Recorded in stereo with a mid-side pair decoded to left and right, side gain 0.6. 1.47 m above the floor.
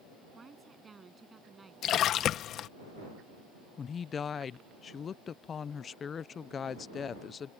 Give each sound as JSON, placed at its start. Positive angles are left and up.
{"t": 0.3, "sound": "a woman speaking", "azimuth_deg": -25}
{"t": 1.8, "sound": "a splash", "azimuth_deg": 55}
{"t": 3.8, "sound": "a woman speaking", "azimuth_deg": 35}